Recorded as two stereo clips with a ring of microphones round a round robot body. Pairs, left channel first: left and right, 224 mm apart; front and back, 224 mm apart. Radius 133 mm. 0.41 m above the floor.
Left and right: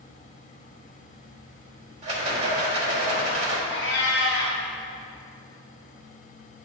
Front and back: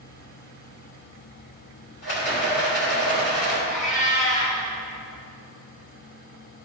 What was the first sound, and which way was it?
A rattle, 35° right.